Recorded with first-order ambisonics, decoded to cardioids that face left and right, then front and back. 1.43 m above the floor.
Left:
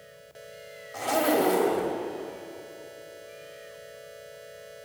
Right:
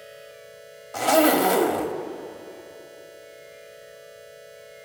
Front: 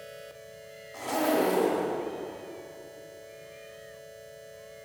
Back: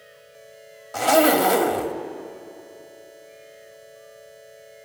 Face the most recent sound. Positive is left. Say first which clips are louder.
# right 6 dB, back 10 dB
turn(degrees=-145)